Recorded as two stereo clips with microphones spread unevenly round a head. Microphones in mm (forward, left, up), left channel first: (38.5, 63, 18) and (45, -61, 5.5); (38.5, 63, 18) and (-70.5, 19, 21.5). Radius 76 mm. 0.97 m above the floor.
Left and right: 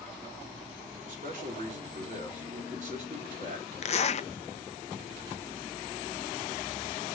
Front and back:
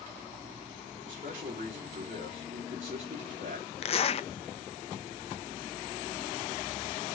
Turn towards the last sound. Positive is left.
turn(degrees=55)